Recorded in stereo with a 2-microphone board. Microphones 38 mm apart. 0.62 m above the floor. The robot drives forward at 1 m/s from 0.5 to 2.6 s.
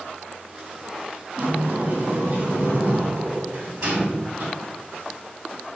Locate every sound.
1.4 s a sliding door: 85° right, 2 m; by 4.5 s 60° right (ahead or behind), 2.5 m